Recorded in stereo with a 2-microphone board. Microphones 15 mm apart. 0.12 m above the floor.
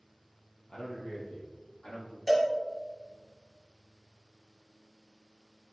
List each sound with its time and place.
0.7 s a man speaking: 65° left (ahead or behind), 3 m; by 2.2 s 75° left (ahead or behind), 5 m
2.3 s a cowbell: 5° left (ahead or behind), 2.5 m